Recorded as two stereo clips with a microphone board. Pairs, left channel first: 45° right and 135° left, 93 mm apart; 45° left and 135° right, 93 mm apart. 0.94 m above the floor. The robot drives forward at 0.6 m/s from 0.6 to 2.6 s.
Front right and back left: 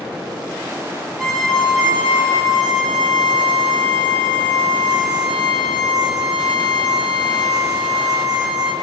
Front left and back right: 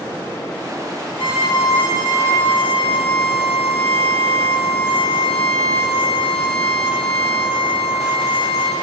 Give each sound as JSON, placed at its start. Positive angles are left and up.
{"t": 1.2, "sound": "a violin", "azimuth_deg": 40, "distance_m": 3.5}